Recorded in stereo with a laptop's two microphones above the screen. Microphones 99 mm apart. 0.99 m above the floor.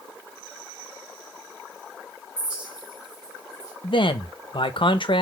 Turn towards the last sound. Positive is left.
turn(degrees=60)  # may be behind; listen again after turning